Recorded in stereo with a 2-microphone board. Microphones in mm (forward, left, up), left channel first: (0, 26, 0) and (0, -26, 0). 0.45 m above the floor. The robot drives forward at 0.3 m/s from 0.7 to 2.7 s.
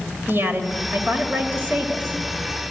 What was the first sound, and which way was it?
A woman speaking, 45° right (ahead or behind).